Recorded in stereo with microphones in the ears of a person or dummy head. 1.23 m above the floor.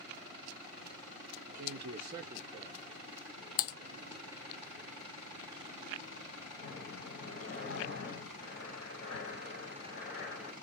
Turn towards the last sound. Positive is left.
turn(degrees=55)  # may be behind; listen again after turning